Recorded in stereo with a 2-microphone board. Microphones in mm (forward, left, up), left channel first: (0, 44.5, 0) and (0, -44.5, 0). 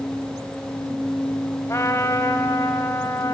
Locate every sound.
1.7 s a trumpet: 35° left (ahead or behind), 1.2 m